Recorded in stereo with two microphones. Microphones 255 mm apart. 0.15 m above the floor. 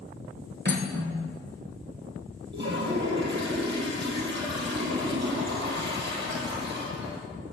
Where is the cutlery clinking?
40° right (ahead or behind), 1.1 m.